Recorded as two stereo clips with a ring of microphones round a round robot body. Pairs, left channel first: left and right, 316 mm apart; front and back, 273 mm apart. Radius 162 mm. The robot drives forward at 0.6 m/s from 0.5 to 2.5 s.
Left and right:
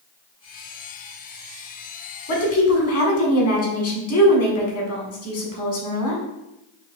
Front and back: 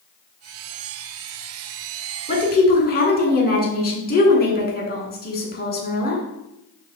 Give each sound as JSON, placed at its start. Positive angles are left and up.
{"t": 2.3, "sound": "a woman speaking", "azimuth_deg": 50, "distance_m": 1.7}